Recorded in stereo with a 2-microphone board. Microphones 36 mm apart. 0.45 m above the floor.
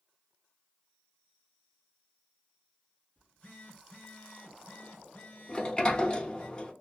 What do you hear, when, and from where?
3.2 s a phone buzzing: 35° left (ahead or behind), 1.8 m
5.5 s a sliding door: 25° left (ahead or behind), 0.7 m